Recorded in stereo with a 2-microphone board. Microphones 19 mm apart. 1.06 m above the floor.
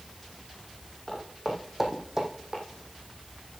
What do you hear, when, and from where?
1.1 s footsteps: 10° left (ahead or behind), 2.5 m; by 2.6 s 50° right (ahead or behind), 1.9 m